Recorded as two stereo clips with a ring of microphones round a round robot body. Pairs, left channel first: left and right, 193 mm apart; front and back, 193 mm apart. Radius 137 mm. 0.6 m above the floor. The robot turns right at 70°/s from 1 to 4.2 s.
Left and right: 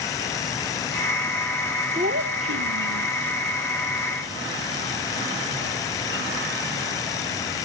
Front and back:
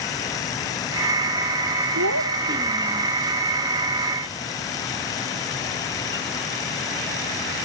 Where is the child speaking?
160° right; by 3.1 s 80° right.